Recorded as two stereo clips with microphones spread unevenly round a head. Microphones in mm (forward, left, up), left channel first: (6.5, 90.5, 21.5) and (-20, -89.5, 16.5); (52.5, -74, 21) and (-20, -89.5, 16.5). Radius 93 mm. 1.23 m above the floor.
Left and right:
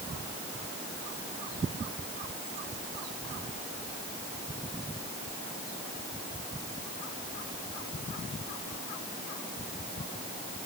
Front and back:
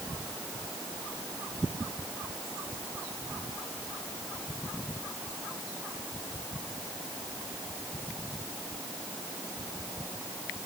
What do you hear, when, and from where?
Only background noise.